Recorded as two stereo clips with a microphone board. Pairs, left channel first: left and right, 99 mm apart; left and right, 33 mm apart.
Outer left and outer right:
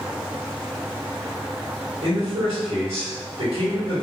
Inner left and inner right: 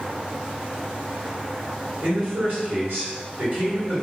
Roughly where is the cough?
I don't hear a cough.